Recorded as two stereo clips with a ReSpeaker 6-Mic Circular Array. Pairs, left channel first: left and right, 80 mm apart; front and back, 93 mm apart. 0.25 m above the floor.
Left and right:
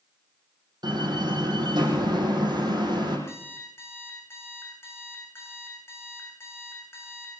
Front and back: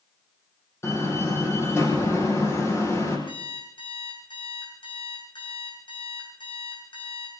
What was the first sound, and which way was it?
A door slam, 60° right.